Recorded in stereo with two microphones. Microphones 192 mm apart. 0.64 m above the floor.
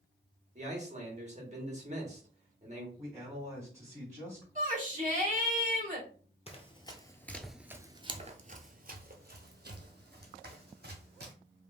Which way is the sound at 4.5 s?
40° right (ahead or behind).